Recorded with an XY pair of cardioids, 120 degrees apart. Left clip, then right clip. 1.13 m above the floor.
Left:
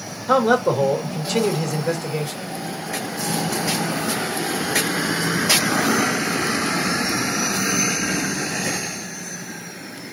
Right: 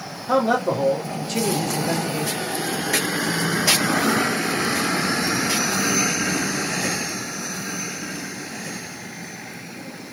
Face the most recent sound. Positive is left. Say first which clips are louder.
# left 3 dB
turn(degrees=50)